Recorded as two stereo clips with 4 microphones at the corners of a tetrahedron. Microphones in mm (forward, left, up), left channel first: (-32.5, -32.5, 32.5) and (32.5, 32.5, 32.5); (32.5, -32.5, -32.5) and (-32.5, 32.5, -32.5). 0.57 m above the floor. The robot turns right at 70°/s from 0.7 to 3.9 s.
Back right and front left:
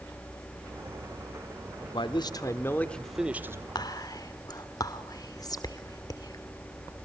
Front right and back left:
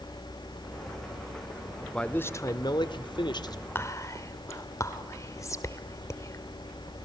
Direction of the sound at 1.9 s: 130° right.